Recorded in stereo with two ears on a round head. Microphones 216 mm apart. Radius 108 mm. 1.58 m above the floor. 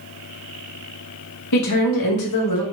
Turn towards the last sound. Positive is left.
turn(degrees=85)